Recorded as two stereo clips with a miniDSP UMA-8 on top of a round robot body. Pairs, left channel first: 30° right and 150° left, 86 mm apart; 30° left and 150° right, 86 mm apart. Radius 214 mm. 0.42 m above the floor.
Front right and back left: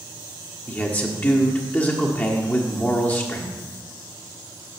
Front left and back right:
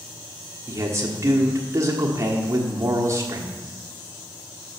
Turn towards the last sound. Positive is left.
turn(degrees=-95)